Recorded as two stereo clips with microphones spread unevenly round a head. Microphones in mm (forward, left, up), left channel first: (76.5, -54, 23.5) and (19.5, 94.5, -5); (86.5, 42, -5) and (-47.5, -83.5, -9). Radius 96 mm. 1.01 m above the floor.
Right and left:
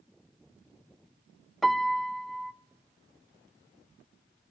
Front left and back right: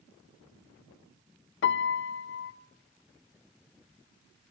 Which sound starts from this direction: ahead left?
A piano, at 1.6 s.